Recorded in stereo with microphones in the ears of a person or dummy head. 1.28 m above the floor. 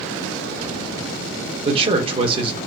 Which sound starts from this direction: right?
A man speaking, at 1.6 s.